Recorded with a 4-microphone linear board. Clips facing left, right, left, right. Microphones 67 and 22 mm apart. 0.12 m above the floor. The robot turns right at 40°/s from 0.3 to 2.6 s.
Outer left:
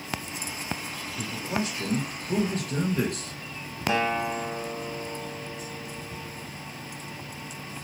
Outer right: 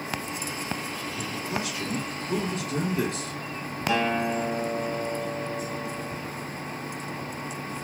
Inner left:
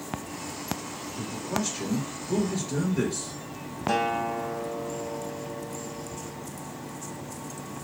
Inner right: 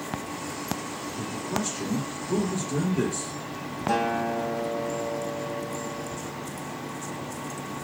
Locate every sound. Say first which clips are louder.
1.2 s a man speaking: outer left 3 dB, even; 30° left, 2 m; by 3.3 s 90° left, 2 m
3.9 s a guitar: outer right 1 dB, inner right 1 dB; 25° left (ahead or behind), 1.2 m